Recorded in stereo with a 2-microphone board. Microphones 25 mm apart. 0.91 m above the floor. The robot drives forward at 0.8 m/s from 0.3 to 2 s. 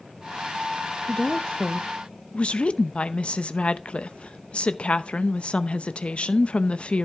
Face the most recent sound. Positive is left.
turn(degrees=50)  # may be behind; listen again after turning